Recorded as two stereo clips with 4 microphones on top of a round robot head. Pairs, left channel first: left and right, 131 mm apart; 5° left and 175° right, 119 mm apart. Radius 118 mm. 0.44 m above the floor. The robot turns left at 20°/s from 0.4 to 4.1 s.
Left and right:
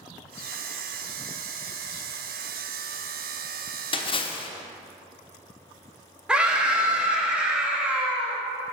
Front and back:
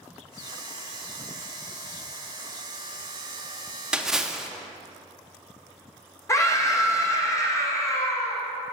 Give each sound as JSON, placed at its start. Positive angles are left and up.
{"t": 3.9, "sound": "a splash", "azimuth_deg": 105, "distance_m": 0.6}
{"t": 6.3, "sound": "a scream", "azimuth_deg": -15, "distance_m": 1.0}